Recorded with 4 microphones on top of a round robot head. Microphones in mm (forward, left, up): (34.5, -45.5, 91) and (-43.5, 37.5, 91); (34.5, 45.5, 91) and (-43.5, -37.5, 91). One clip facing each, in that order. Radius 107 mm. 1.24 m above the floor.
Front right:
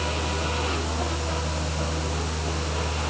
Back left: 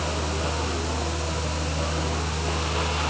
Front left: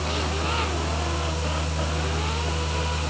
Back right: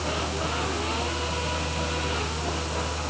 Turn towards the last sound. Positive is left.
No sound to turn to.